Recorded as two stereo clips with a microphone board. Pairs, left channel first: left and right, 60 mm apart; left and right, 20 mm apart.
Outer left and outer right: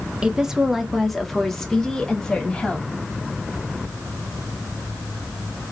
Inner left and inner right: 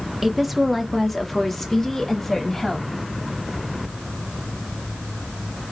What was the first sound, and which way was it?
A woman speaking, 15° right (ahead or behind).